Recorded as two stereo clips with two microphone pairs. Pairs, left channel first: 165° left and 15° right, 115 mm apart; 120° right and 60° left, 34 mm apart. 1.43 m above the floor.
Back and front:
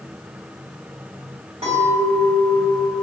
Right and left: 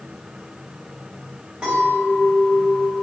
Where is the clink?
5° left, 2.0 m.